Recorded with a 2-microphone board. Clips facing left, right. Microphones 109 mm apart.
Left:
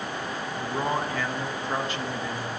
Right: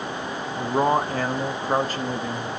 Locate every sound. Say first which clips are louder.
0.6 s a man speaking: right 7 dB; 40° right (ahead or behind), 1.3 m